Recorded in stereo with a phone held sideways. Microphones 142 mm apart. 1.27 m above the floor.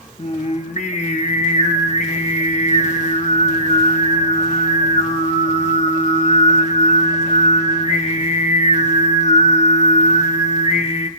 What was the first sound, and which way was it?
Singing, 55° left (ahead or behind).